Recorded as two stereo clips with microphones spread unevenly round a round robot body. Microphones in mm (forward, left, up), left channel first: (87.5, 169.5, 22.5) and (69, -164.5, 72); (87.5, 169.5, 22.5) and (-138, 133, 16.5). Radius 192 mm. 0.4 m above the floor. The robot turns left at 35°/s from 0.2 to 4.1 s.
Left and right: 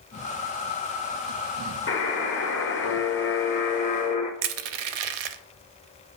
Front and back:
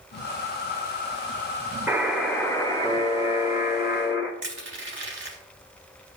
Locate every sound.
1.9 s a buzzer: 105° left, 1.4 m; by 4.3 s 30° left, 1.4 m
4.4 s crushing: 100° right, 0.6 m